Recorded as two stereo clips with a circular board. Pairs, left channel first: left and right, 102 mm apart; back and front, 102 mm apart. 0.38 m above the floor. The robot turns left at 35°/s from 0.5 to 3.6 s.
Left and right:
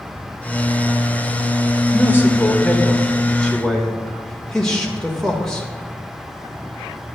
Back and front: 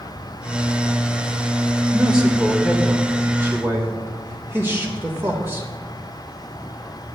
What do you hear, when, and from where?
1.9 s a man speaking: 75° left, 1.2 m; by 5.7 s 20° left, 1.2 m